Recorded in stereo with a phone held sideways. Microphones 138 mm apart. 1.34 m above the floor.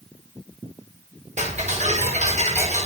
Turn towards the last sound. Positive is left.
turn(degrees=-65)  # may be behind; listen again after turning